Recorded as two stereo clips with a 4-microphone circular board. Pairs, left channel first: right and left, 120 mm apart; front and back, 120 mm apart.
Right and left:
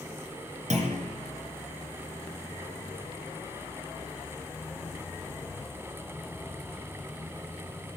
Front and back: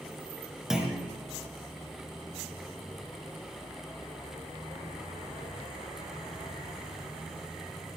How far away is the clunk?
About 4.5 m.